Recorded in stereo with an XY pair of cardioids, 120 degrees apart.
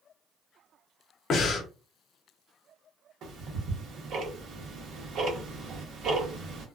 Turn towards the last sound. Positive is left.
turn(degrees=-60)